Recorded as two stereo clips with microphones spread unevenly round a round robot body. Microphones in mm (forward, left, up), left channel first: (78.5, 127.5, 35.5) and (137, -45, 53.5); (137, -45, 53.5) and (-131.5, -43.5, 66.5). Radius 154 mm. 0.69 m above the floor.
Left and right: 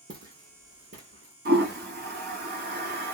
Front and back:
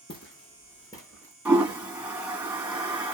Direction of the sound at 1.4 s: 95° right.